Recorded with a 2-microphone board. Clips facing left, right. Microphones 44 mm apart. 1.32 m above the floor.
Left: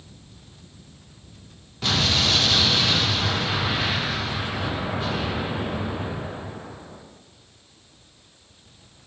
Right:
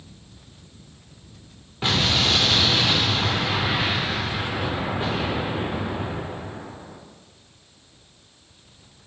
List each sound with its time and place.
1.8 s an explosion: 20° right (ahead or behind), 0.6 m